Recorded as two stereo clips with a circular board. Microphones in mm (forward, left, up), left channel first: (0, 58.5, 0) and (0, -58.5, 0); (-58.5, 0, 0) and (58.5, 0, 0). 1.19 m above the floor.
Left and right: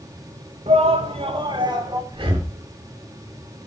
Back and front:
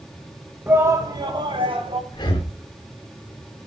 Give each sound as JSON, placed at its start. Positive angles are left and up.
{"t": 0.7, "sound": "a shout", "azimuth_deg": -70, "distance_m": 1.6}
{"t": 2.1, "sound": "breathing", "azimuth_deg": -130, "distance_m": 2.0}